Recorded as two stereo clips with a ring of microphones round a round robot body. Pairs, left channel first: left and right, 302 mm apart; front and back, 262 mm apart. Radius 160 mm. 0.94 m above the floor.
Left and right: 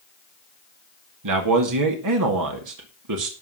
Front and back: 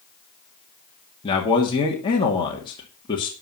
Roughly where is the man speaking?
Right.